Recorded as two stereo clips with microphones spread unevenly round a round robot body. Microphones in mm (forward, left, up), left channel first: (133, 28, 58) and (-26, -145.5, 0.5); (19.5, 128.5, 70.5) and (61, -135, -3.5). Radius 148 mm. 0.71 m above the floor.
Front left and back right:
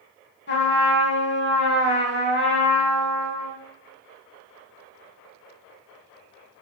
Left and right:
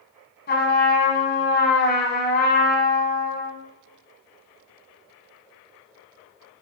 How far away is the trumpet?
About 0.8 m.